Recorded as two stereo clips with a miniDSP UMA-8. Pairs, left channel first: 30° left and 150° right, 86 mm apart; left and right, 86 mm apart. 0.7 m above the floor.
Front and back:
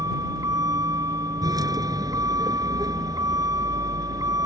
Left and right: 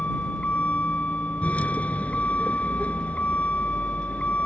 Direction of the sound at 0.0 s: 165° left.